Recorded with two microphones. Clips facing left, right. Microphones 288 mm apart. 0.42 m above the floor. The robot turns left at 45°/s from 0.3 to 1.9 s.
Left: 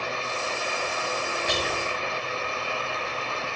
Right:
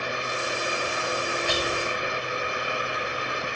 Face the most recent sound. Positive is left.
turn(degrees=20)  # may be behind; listen again after turning